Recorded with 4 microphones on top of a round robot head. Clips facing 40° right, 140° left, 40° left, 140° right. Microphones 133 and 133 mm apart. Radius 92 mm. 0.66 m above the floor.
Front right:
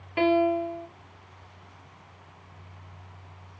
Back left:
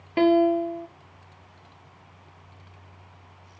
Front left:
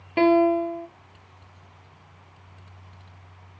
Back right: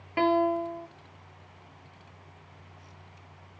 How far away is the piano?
About 1.1 m.